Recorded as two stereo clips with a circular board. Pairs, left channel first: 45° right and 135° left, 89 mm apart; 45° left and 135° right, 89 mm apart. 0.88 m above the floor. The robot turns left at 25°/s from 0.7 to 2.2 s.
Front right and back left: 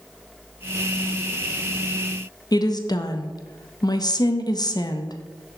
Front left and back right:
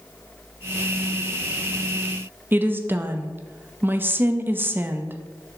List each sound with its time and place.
2.5 s a woman speaking: 75° right, 0.6 m